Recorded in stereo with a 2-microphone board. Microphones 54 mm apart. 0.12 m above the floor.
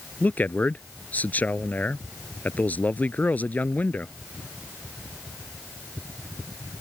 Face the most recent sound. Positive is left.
turn(degrees=30)  # may be behind; listen again after turning